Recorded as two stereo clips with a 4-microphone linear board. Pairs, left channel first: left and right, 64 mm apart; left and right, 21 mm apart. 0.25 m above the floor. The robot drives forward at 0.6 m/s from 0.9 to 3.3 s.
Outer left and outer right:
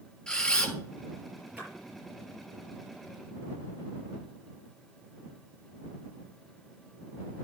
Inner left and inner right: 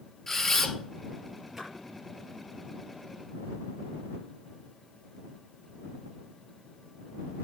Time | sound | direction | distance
0.3 | a camera shutter | 10° left (ahead or behind) | 1.5 m
1.6 | a splash | 25° right (ahead or behind) | 6 m